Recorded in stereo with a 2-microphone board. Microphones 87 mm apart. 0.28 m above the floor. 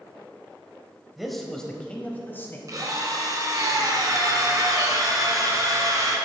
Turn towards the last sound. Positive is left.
turn(degrees=-40)  # may be behind; listen again after turning